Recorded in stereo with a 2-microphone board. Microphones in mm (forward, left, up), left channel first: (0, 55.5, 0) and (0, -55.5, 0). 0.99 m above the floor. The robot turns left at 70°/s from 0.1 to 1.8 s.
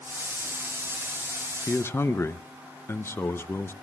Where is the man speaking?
20° left (ahead or behind), 0.6 m; by 3.7 s 25° left (ahead or behind), 0.6 m.